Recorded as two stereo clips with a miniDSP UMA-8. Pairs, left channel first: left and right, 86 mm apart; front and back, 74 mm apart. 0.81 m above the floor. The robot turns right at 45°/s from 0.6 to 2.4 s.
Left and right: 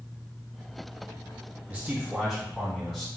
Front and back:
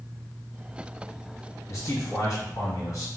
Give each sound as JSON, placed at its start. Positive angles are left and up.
{"t": 1.7, "sound": "a man speaking", "azimuth_deg": -30, "distance_m": 1.4}